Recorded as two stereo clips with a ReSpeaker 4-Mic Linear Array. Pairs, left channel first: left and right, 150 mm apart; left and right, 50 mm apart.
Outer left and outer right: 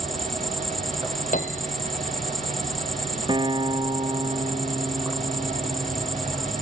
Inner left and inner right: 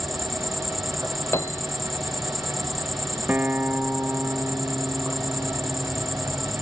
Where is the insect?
Centre (ahead or behind).